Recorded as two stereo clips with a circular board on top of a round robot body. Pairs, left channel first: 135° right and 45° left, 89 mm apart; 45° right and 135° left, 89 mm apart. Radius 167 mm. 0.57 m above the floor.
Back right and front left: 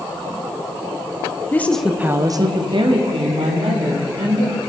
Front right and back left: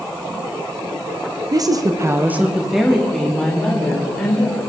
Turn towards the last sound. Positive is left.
turn(degrees=30)